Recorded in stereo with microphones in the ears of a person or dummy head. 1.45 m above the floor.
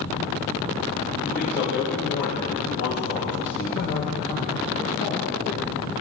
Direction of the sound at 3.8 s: 45° left (ahead or behind).